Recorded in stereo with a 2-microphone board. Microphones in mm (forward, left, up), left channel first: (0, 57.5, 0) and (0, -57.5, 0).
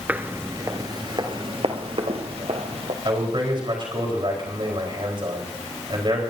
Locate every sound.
0.1 s footsteps: 15° right (ahead or behind), 0.9 m; by 3.0 s 65° right (ahead or behind), 1.9 m
3.0 s a man speaking: 45° right (ahead or behind), 4.5 m